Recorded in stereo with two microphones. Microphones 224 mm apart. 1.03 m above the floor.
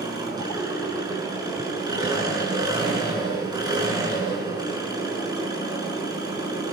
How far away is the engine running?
About 7.5 m.